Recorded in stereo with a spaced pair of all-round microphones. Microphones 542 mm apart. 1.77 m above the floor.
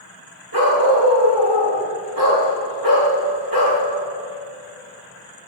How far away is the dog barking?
About 1.8 m.